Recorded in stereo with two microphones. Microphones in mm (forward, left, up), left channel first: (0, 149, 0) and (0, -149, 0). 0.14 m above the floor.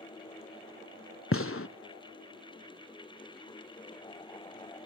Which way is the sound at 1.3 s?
50° left (ahead or behind).